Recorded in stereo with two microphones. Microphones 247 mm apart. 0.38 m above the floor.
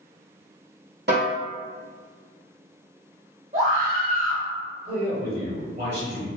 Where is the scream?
35° right (ahead or behind), 1.5 m.